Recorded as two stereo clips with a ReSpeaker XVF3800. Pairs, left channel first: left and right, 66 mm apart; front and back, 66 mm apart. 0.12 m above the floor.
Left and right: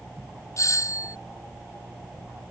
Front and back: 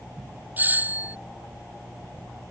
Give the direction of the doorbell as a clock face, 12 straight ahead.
8 o'clock.